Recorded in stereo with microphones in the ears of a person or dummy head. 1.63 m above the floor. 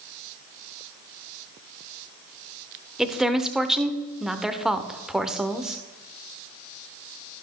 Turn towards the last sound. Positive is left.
turn(degrees=0)  # may be behind; listen again after turning